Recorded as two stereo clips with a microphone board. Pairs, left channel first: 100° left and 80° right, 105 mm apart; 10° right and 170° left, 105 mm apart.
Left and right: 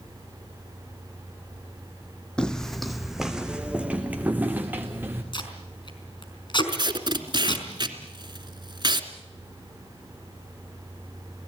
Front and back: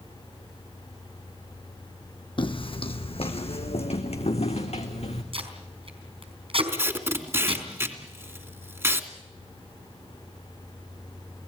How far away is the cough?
I don't hear a cough.